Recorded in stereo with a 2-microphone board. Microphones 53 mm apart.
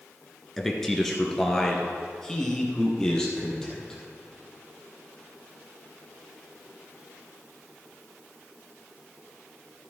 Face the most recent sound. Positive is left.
turn(degrees=10)  # may be behind; listen again after turning